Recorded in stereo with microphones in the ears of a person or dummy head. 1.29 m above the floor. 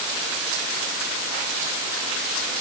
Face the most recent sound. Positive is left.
No sound to turn to.